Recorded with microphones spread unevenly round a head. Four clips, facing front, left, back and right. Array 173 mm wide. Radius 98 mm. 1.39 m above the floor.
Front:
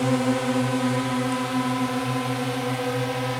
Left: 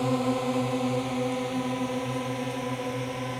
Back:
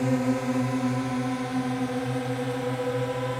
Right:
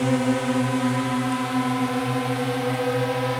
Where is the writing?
I don't hear writing.